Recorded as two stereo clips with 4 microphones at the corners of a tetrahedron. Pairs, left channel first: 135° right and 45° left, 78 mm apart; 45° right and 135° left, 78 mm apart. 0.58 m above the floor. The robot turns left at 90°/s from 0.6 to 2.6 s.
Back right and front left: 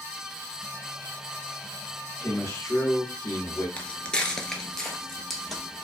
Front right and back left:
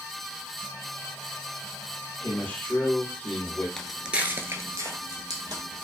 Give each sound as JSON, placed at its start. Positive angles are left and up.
{"t": 2.2, "sound": "a man speaking", "azimuth_deg": -75, "distance_m": 1.2}
{"t": 3.8, "sound": "footsteps", "azimuth_deg": -110, "distance_m": 0.5}